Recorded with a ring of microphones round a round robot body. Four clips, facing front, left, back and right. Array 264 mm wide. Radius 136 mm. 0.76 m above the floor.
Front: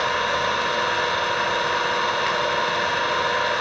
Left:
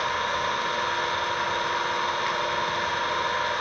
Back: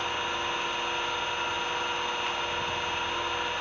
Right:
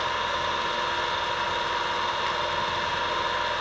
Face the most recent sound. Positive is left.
turn(degrees=0)